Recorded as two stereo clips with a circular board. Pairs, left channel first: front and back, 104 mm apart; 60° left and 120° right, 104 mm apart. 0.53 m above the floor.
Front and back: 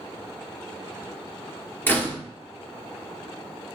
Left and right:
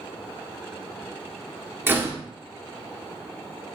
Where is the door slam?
60° right, 0.8 m.